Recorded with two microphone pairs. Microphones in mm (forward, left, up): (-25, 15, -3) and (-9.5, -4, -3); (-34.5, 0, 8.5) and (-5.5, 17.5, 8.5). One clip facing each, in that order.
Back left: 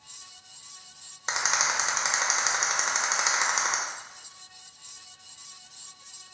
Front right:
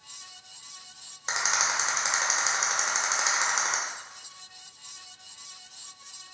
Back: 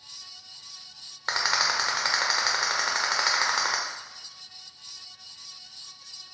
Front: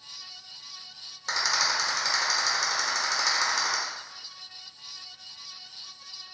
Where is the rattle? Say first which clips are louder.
Back left 1 dB, back 1 dB; 160° right, 0.9 m.